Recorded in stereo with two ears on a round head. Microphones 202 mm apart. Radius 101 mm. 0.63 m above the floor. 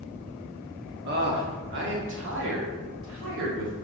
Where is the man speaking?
45° right (ahead or behind), 1.3 m; by 3.7 s 60° right (ahead or behind), 2.5 m.